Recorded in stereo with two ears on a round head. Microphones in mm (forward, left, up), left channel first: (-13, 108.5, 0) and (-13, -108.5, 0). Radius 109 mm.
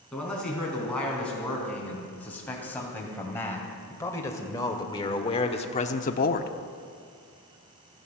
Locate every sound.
0.1 s a man speaking: 5° left (ahead or behind), 4.5 m; by 6.5 s 40° left (ahead or behind), 0.8 m